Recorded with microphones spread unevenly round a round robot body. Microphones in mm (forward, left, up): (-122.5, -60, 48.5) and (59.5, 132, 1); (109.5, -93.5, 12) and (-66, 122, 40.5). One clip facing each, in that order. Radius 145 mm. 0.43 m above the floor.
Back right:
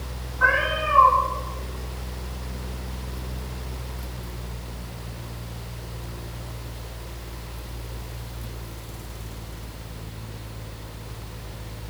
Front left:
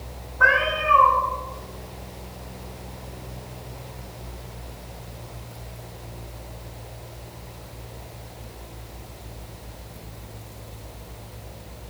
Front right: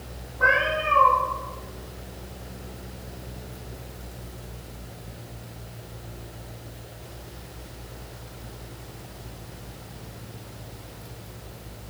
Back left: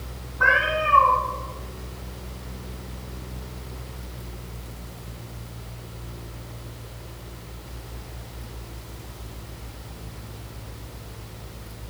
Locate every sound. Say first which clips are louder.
0.4 s a cat meowing: front left 2 dB, even; 70° left, 1.7 m